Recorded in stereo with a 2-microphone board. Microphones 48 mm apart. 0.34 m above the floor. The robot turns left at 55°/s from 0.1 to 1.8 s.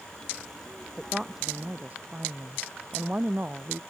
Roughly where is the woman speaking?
Ahead.